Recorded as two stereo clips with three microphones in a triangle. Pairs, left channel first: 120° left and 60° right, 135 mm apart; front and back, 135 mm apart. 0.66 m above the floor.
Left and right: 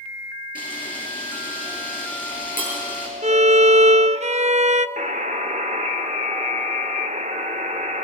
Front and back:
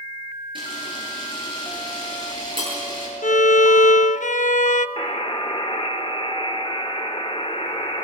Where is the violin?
25° right, 0.5 m.